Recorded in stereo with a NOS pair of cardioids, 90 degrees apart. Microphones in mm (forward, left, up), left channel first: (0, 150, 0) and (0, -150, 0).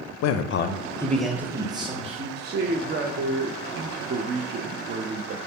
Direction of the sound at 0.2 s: 65° left.